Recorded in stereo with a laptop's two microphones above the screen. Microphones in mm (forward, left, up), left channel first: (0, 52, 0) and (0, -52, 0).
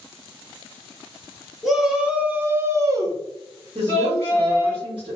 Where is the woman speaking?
50° right (ahead or behind), 1.2 m.